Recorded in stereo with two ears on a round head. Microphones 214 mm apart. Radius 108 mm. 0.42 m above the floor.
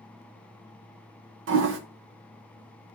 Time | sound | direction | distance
1.5 | a toilet flushing | 55° right (ahead or behind) | 0.7 m